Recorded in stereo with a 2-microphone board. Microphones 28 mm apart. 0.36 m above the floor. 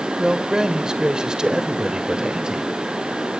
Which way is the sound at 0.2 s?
25° right (ahead or behind).